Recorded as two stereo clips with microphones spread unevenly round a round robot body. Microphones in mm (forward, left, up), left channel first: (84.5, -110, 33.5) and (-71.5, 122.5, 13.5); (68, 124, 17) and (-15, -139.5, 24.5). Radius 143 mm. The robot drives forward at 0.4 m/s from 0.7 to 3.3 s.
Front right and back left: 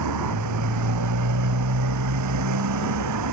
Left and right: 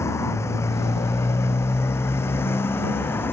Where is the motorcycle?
155° left.